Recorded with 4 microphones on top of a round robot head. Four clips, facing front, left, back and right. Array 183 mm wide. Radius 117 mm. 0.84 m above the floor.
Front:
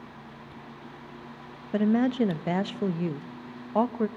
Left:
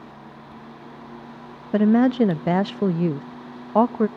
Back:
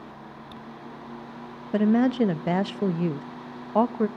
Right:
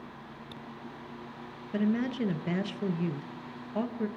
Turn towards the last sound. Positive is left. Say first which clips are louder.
# left 12 dB, back 3 dB
turn(degrees=95)